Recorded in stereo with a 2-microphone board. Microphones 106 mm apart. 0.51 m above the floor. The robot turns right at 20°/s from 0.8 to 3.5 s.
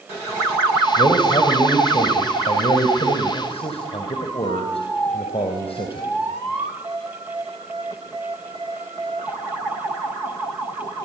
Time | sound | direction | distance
1.0 | a man speaking | 55° left | 3 m